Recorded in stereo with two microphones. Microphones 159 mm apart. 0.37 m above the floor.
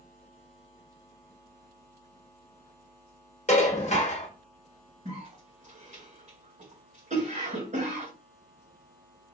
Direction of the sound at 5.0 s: 50° right (ahead or behind).